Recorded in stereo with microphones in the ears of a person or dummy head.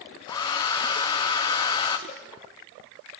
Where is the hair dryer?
20° left (ahead or behind), 0.6 m.